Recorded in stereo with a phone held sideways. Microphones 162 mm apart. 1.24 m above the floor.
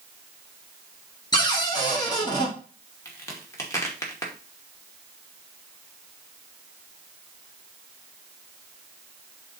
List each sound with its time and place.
1.3 s a cupboard door: 25° left (ahead or behind), 2 m
3.0 s a crack: 20° left (ahead or behind), 2 m